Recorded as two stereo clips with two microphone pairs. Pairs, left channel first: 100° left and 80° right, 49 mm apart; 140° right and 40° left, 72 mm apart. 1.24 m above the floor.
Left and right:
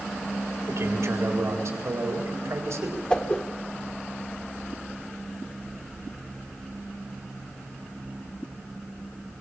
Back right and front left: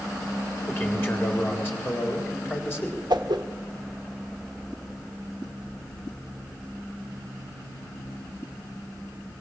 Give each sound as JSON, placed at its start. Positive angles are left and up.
{"t": 0.7, "sound": "a man speaking", "azimuth_deg": -80, "distance_m": 4.0}
{"t": 3.1, "sound": "a whoosh", "azimuth_deg": 35, "distance_m": 1.3}